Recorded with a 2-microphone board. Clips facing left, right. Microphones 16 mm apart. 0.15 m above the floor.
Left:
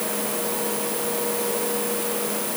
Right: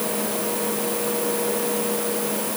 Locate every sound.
Only background noise.